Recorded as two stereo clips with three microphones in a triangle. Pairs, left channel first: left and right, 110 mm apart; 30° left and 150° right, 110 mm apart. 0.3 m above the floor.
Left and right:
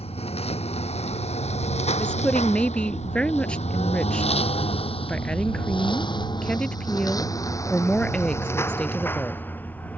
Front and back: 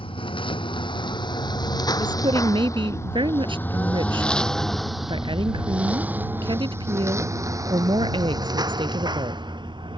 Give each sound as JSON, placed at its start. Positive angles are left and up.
{"t": 0.0, "sound": "a lawn mower", "azimuth_deg": 65}
{"t": 2.0, "sound": "a woman speaking", "azimuth_deg": 170}